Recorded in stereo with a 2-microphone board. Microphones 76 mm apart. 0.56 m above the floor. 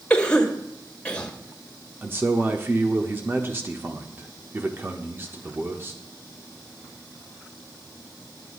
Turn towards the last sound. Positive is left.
turn(degrees=-30)  # may be behind; listen again after turning